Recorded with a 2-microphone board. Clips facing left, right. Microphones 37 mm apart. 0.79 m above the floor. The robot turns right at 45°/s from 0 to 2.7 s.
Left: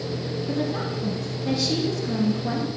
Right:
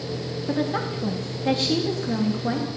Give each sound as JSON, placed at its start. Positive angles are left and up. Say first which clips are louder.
{"t": 0.5, "sound": "a woman speaking", "louder": "right 3 dB", "azimuth_deg": -125, "distance_m": 1.4}